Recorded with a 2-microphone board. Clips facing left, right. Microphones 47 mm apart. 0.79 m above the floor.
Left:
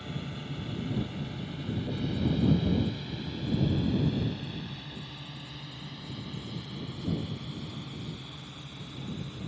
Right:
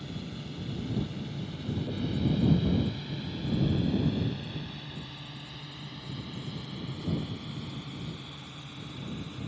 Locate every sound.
0.0 s a drone: 30° left (ahead or behind); by 9.5 s 20° right (ahead or behind)